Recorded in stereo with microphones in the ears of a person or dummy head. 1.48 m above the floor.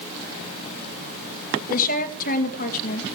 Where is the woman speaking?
50° left (ahead or behind), 2 m.